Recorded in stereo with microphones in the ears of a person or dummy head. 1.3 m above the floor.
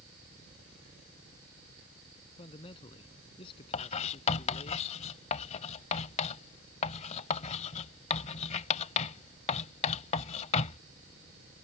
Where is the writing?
40° left (ahead or behind).